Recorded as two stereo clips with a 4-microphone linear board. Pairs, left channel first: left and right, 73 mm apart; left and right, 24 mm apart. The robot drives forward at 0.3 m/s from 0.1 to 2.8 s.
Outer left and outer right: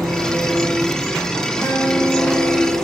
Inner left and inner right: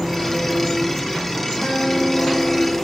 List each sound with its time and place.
0.0 s an engine running: 5° left (ahead or behind), 7 m
1.6 s a guitar: 40° left (ahead or behind), 7 m; by 2.7 s 35° left (ahead or behind), 7.5 m